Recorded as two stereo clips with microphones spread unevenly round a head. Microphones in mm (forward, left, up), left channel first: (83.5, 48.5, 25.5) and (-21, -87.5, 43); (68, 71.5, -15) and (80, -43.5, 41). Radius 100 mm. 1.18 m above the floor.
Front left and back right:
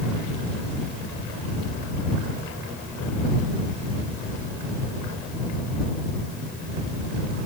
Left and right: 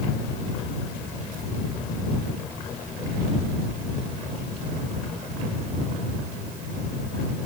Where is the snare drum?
I don't hear a snare drum.